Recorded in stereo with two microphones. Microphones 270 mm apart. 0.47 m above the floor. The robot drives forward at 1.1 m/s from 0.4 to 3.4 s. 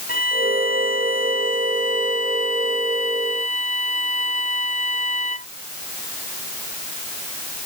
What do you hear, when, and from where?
0.1 s a violin: 30° left (ahead or behind); by 5.5 s 25° left (ahead or behind)